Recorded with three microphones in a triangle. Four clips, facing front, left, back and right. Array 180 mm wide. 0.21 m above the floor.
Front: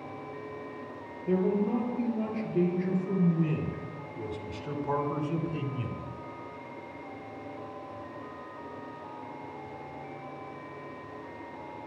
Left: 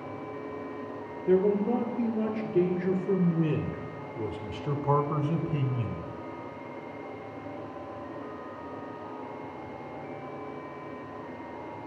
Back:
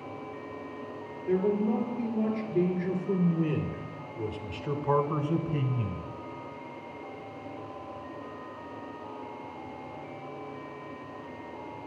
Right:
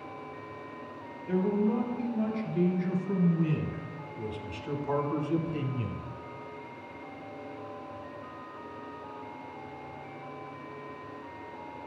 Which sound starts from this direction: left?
A man speaking, at 1.3 s.